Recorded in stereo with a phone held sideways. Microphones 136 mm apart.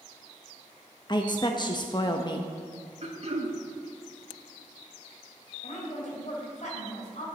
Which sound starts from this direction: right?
Throat clearing, at 3.0 s.